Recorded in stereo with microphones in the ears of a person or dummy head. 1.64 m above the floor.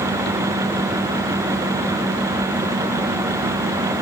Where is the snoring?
No snoring in this recording.